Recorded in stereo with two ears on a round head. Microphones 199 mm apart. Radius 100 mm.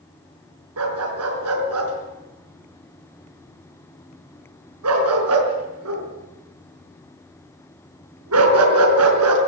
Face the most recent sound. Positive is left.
turn(degrees=-70)  # may be behind; listen again after turning